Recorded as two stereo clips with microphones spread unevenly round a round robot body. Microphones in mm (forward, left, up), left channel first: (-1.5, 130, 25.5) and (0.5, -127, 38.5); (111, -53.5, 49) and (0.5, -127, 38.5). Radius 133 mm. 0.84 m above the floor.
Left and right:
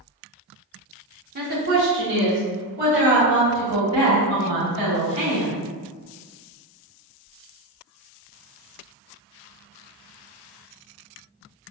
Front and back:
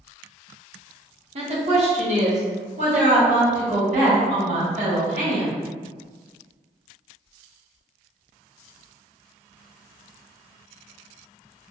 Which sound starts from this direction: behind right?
A woman speaking, at 1.4 s.